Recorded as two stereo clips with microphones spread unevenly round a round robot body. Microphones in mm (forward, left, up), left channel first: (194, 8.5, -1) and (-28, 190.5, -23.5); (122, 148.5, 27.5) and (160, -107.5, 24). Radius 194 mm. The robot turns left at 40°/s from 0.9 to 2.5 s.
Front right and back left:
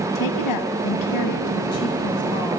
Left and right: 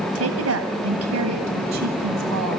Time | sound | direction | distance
0.1 | a woman speaking | 60° right | 3 m